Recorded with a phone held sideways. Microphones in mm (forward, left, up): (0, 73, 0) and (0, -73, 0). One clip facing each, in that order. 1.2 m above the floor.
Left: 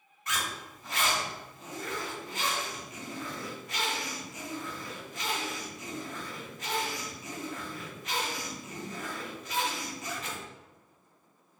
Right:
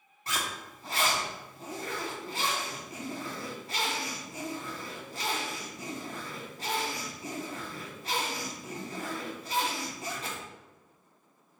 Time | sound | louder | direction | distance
0.3 | a zipper | even | 30° right (ahead or behind) | 0.7 m